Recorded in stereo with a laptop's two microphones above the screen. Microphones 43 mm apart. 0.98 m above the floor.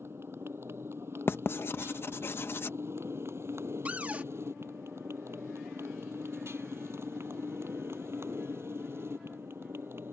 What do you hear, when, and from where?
0.0 s a motorcycle: 70° right (ahead or behind)
1.3 s writing: 65° left (ahead or behind)
3.9 s a cupboard door: 40° right (ahead or behind)